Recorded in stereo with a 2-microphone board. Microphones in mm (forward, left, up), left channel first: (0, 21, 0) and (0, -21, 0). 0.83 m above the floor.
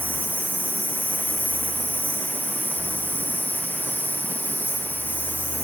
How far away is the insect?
About 10 m.